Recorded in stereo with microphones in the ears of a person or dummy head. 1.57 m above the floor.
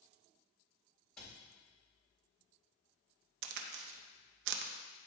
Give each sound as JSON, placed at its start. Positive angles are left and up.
{"t": 1.2, "sound": "a cupboard door", "side_deg": 5, "distance_m": 1.8}
{"t": 3.4, "sound": "a crack", "side_deg": -70, "distance_m": 0.6}